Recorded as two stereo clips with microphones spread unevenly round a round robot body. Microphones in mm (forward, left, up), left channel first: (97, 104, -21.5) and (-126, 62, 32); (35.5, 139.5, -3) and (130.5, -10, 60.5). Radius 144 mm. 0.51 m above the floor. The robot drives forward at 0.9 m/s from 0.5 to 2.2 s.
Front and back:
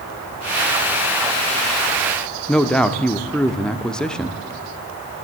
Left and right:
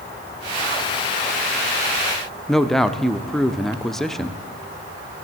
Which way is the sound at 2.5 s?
70° left.